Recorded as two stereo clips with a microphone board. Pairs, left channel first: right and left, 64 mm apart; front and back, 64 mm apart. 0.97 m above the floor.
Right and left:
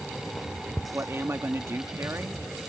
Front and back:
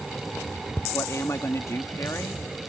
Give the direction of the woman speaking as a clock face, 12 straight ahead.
11 o'clock.